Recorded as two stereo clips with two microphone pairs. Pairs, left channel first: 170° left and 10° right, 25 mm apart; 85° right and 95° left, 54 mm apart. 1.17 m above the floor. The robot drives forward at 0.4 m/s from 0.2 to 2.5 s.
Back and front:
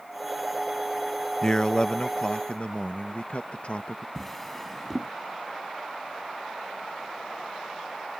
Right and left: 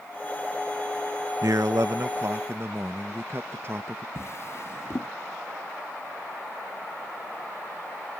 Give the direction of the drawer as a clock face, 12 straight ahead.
4 o'clock.